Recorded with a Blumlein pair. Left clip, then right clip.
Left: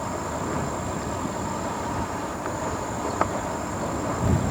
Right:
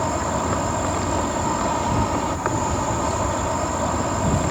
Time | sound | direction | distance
0.0 | an insect | 65° right | ?